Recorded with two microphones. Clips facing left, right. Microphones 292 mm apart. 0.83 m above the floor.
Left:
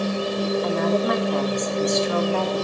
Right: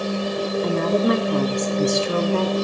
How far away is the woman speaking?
About 1.4 m.